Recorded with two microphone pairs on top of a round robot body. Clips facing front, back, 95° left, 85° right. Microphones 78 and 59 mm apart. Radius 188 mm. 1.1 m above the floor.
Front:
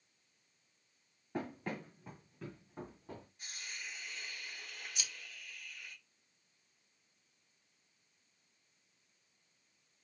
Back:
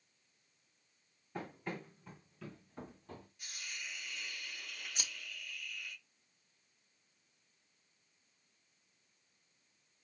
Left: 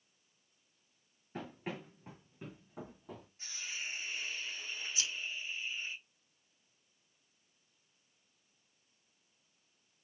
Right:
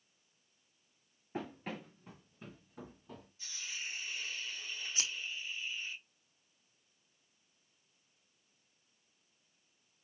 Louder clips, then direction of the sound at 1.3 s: Front 3 dB, right 1 dB; 20° right.